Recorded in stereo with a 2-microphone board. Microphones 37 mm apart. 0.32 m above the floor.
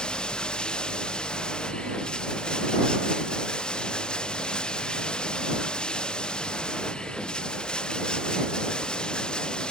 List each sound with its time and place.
0.0 s running water: 25° left (ahead or behind)